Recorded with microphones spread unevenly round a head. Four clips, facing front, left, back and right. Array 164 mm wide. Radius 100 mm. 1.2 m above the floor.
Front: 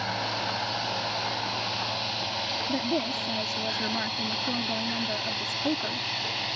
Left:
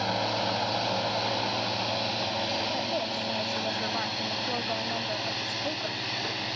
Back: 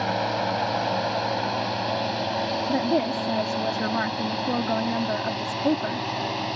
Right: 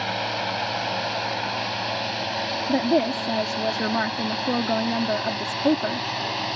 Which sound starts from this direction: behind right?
A woman speaking, at 2.7 s.